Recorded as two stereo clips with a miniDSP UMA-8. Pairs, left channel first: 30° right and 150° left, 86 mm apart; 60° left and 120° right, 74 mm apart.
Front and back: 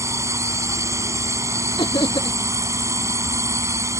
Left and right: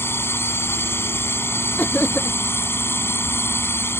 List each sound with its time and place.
0.0 s a drone: 105° left
1.8 s laughter: 10° right